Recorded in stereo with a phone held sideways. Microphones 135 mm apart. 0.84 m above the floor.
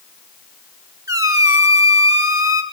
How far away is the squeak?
About 0.8 m.